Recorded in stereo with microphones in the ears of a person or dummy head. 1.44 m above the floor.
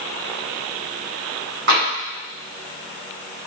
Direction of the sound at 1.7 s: 65° right (ahead or behind).